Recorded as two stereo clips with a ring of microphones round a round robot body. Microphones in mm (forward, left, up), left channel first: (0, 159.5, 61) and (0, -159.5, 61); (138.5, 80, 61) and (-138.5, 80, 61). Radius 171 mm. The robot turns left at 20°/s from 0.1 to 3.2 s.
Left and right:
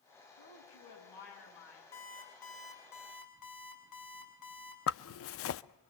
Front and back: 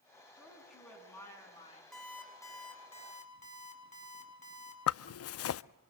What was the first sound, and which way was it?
A woman speaking, 100° left.